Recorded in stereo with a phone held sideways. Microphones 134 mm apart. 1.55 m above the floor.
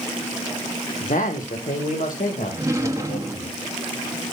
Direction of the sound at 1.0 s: 70° left (ahead or behind).